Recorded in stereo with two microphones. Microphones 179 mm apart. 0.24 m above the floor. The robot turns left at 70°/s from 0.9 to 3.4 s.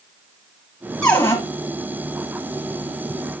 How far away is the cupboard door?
About 1.2 m.